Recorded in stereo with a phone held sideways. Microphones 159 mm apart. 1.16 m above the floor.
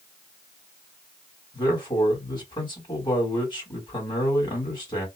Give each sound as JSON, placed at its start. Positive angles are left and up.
{"t": 1.5, "sound": "a man speaking", "side_deg": 25, "distance_m": 1.9}